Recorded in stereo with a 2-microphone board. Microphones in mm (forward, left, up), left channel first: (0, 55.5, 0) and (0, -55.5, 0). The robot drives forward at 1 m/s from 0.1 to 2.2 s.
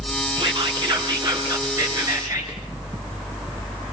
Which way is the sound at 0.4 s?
45° right (ahead or behind).